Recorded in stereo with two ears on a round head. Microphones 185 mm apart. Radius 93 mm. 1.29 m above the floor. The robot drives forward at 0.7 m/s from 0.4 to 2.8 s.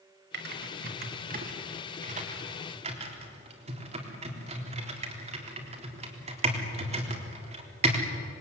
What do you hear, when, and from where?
0.3 s typing on a keyboard: 55° right (ahead or behind), 2.5 m; by 8.1 s 35° right (ahead or behind), 4 m